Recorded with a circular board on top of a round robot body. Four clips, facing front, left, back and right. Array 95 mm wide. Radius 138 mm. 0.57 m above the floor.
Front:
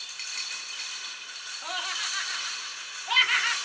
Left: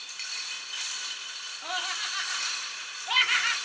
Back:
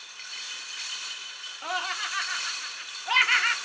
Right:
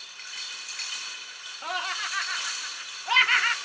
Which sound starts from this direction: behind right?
Laughter, at 1.6 s.